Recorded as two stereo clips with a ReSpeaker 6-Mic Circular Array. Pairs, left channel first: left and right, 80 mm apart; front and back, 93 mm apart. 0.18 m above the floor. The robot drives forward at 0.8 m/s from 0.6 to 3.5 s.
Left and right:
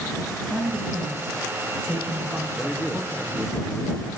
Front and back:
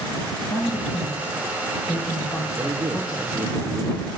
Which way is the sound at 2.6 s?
150° left.